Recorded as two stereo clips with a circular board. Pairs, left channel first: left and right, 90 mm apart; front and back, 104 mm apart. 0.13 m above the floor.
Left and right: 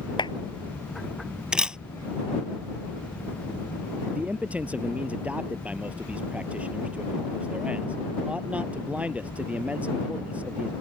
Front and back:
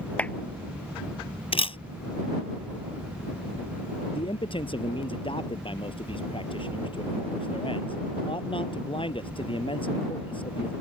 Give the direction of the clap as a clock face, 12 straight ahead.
9 o'clock.